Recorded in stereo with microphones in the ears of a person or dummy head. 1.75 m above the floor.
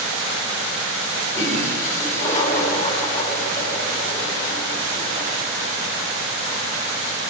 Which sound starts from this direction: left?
A toilet flushing, at 1.3 s.